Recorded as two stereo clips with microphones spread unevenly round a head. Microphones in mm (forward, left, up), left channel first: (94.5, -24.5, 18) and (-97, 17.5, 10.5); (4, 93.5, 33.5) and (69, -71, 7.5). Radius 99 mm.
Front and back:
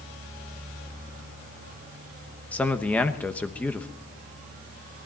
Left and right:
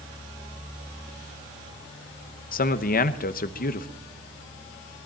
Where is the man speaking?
70° left, 1.0 m.